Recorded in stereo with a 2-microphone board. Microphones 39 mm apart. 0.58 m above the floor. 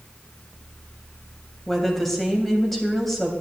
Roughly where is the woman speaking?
Centre.